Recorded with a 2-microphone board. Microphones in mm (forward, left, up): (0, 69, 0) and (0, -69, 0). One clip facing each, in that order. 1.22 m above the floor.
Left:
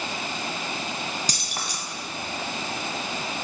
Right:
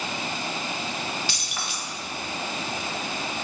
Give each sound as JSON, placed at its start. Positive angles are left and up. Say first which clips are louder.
{"t": 1.3, "sound": "keys jangling", "louder": "left 1 dB", "side_deg": 40, "distance_m": 0.8}